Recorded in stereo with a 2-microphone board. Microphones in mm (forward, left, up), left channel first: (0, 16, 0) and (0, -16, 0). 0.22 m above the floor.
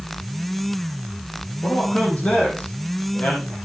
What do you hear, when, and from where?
1.6 s a man speaking: 45° left (ahead or behind), 7.5 m